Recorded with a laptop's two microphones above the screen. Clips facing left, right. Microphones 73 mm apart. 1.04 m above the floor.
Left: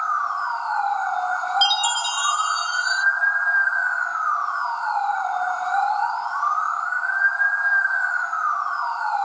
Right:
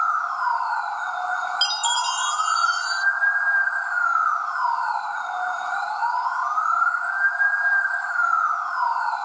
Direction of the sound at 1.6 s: 45° left (ahead or behind).